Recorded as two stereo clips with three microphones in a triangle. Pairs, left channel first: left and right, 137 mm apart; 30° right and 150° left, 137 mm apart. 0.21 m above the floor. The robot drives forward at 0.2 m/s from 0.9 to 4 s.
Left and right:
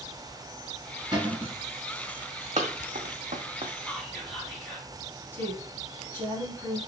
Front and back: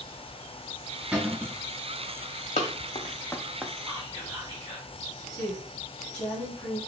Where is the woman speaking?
50° left, 1.3 m.